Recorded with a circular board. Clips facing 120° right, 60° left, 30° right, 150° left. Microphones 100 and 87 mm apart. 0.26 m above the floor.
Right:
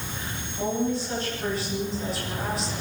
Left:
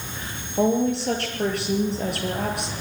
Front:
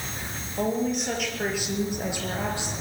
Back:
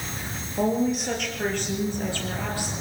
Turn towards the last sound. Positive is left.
turn(degrees=35)